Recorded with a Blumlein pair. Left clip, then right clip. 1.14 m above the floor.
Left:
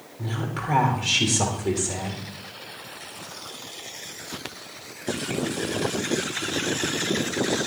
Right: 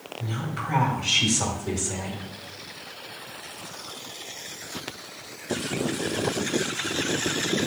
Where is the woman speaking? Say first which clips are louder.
Left 2 dB; 30° left, 2.5 m.